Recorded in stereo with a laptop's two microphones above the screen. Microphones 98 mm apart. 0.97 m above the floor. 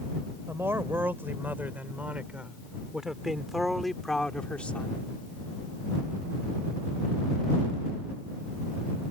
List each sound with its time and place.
0.5 s a man speaking: 25° right (ahead or behind); by 5.1 s 20° left (ahead or behind)